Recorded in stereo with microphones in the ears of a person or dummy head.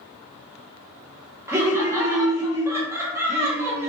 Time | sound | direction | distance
1.5 | laughter | 15° right (ahead or behind) | 0.6 m